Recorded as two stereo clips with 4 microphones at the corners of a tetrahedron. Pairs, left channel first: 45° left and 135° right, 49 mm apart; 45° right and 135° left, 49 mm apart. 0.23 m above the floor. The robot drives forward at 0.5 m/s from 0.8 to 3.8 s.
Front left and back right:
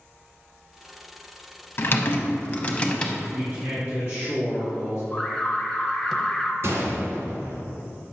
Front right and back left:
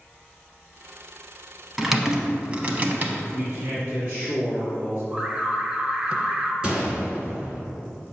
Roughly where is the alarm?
Behind left.